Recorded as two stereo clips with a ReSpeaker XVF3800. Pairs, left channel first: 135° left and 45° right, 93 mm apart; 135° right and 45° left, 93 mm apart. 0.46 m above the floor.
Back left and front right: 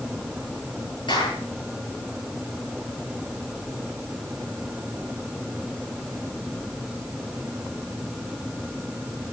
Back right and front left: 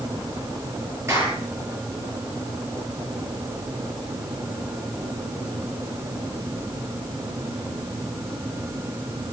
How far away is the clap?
About 9.5 m.